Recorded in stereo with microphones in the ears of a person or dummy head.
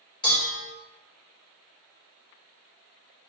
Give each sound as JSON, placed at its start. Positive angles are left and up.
{"t": 0.2, "sound": "dishes clattering", "side_deg": 5, "distance_m": 4.0}